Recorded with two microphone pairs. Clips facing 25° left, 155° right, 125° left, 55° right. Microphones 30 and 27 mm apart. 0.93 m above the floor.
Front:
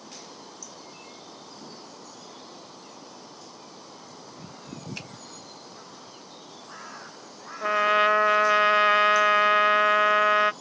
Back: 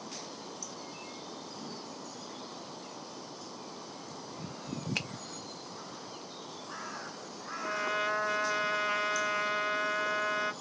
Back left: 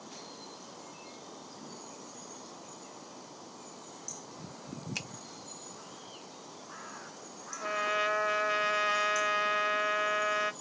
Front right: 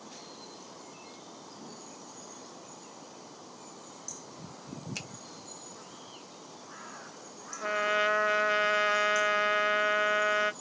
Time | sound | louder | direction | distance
5.0 | a finger snap | back 7 dB, back left 3 dB | 160° right | 0.9 m
7.6 | a trumpet | front 11 dB, front right 3 dB | 20° left | 0.7 m